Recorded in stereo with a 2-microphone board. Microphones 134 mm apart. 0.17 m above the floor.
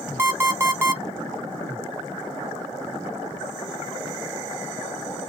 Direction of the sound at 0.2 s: 20° right (ahead or behind).